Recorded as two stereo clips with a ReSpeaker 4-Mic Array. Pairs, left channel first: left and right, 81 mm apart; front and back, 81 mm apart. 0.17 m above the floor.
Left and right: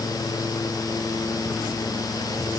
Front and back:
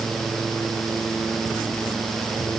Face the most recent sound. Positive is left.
No sound to turn to.